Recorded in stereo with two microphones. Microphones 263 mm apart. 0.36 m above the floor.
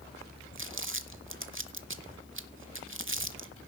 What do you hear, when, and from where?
0.6 s crumpling: 50° right (ahead or behind), 0.9 m